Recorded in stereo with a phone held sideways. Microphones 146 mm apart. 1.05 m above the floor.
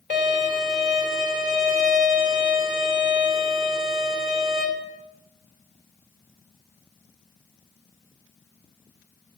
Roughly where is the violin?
Right.